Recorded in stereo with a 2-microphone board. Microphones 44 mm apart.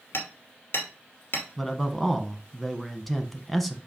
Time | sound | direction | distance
0.1 | hammering | 55° left (ahead or behind) | 2.5 m
1.6 | a man speaking | 5° left (ahead or behind) | 1.1 m